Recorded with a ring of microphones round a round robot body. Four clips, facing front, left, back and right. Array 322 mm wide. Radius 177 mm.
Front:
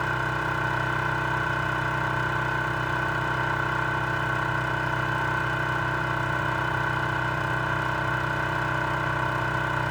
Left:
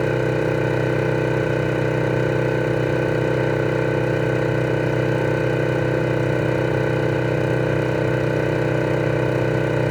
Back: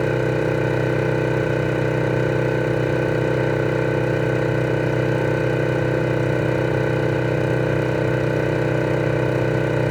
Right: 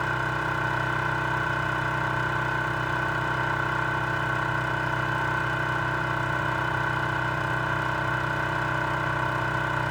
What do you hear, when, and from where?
0.0 s an engine running: 135° left